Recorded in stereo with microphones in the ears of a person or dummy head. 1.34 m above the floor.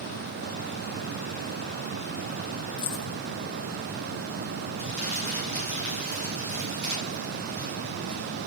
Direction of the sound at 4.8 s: 40° right (ahead or behind).